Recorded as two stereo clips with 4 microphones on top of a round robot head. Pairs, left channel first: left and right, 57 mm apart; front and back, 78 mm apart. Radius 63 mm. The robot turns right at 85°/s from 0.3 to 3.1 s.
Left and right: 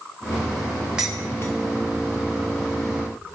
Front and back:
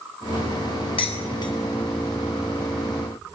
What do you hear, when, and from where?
1.0 s dishes clattering: 10° right, 3 m; by 1.5 s 40° left, 3 m